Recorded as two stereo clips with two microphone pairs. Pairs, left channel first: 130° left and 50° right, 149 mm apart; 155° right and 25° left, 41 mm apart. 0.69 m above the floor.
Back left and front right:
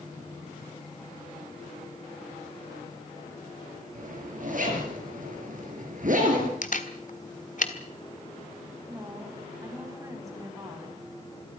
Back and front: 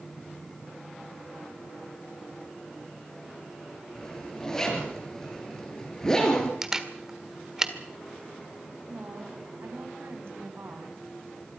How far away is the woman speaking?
About 5 m.